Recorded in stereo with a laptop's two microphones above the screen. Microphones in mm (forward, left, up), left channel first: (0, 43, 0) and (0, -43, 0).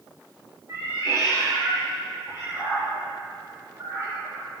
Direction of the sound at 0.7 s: 35° right (ahead or behind).